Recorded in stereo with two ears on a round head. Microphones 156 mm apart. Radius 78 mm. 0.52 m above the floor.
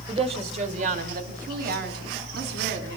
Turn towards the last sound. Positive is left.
turn(degrees=-65)  # may be behind; listen again after turning